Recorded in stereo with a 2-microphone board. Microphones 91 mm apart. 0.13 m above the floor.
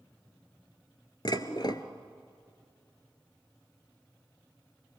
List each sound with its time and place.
1.2 s dishes clattering: 50° left (ahead or behind), 1.2 m